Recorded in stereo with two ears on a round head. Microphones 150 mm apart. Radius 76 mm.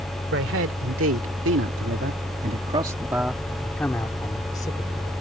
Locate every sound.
0.3 s a man speaking: 85° right; by 5.1 s 25° left (ahead or behind)